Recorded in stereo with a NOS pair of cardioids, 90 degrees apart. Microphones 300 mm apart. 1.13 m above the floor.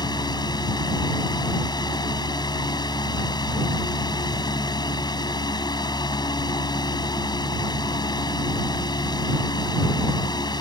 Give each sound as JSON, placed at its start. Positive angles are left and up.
{"t": 0.0, "sound": "a fan", "azimuth_deg": 15}